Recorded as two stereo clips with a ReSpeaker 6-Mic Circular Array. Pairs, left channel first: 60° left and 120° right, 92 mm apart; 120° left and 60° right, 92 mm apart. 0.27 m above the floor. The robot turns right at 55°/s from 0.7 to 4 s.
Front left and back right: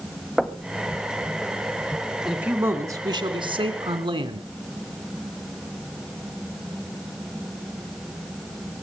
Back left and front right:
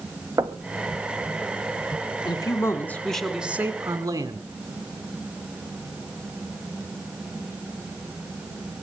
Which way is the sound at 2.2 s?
155° left.